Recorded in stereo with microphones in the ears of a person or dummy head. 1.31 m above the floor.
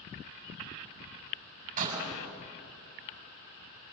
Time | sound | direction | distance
1.8 | a door slam | 45° right (ahead or behind) | 6.5 m